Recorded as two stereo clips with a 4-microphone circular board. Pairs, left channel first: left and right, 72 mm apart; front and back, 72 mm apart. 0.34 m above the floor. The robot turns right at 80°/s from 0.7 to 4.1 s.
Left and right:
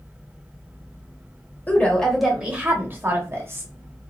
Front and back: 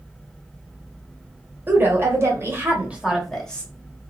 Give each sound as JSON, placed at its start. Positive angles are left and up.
{"t": 1.7, "sound": "a woman speaking", "azimuth_deg": 140, "distance_m": 1.0}